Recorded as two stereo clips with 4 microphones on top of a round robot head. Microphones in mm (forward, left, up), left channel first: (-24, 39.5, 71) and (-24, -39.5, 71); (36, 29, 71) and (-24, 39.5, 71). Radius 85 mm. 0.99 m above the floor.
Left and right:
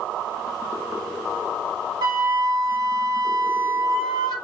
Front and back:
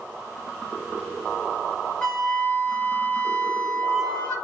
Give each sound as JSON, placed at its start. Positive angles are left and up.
{"t": 2.0, "sound": "a flute", "azimuth_deg": -85, "distance_m": 1.5}